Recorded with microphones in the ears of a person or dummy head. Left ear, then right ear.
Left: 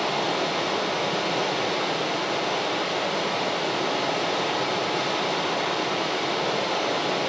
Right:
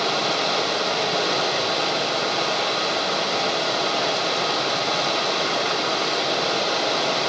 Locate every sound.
0.0 s running water: 50° right (ahead or behind), 3 m